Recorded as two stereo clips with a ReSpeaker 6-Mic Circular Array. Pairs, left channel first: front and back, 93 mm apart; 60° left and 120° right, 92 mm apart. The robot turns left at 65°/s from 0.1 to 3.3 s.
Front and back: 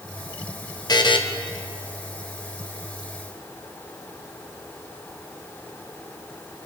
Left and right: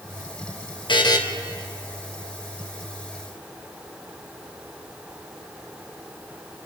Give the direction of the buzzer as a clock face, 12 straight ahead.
11 o'clock.